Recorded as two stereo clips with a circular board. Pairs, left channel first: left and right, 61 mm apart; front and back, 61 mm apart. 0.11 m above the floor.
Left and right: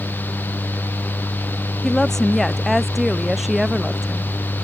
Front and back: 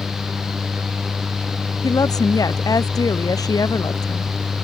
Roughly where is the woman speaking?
Ahead.